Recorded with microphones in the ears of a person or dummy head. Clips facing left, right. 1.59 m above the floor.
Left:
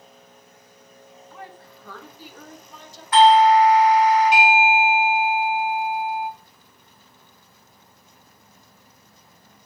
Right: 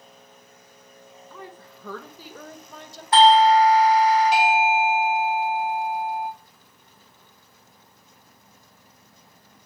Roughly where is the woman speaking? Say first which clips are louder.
Even; right.